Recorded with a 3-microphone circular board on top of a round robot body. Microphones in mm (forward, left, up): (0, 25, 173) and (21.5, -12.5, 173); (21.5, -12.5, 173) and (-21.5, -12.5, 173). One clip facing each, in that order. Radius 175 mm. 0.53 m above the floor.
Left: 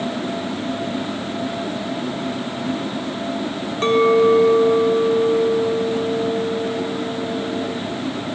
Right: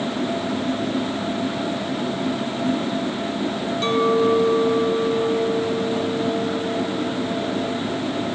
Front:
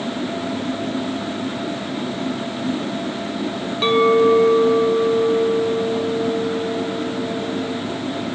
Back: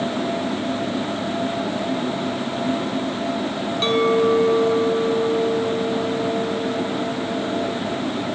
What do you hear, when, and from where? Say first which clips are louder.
3.8 s a clink: left 5 dB, front 4 dB; 80° left, 1.3 m